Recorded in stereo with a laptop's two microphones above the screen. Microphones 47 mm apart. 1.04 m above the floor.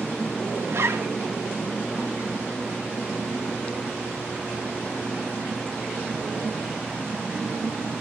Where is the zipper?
65° right (ahead or behind), 1.8 m.